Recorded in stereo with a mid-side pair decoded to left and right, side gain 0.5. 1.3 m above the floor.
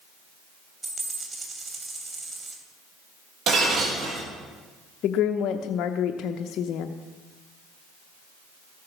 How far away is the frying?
No frying in this recording.